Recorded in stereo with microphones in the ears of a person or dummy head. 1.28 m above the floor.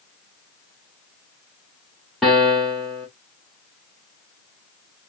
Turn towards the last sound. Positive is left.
turn(degrees=0)  # may be behind; listen again after turning